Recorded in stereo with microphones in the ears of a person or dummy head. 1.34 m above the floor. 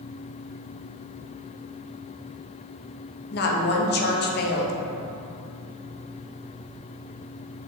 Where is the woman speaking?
50° left (ahead or behind), 0.9 m.